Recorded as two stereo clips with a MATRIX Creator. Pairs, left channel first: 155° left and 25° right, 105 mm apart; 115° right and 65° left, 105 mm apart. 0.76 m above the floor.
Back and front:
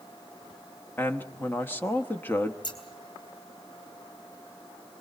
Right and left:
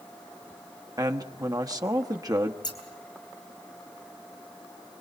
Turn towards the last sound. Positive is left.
turn(degrees=-160)